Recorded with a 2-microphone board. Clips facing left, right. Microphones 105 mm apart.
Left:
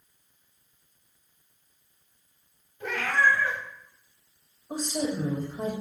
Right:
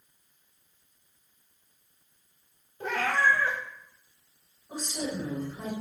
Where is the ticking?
No ticking in this recording.